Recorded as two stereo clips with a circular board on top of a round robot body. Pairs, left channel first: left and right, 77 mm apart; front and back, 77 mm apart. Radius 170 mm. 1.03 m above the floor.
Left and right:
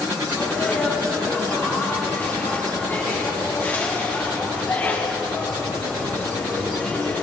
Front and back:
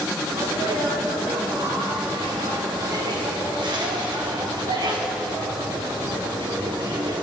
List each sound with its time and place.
0.3 s a sneeze: 155° left, 4.5 m